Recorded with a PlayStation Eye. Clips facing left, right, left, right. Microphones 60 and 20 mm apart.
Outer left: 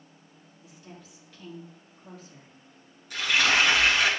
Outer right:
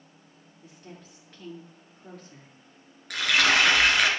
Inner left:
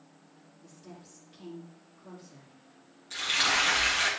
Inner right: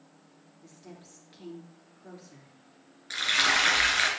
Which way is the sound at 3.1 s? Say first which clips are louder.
Outer right 1 dB, inner right 2 dB; 75° right (ahead or behind).